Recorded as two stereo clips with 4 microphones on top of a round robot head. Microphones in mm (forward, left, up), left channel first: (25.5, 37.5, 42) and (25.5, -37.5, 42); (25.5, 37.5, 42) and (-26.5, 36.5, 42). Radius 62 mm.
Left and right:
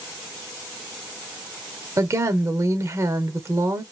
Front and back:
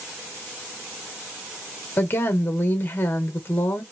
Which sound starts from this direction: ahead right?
A woman speaking, at 2.0 s.